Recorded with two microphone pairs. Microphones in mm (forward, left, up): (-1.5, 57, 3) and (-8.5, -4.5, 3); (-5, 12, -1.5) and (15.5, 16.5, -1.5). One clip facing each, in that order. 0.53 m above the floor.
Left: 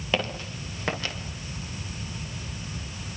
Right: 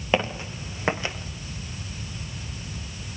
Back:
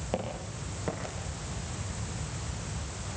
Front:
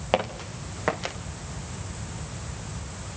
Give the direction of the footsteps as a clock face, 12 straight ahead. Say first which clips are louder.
Right 4 dB, front 9 dB; 1 o'clock.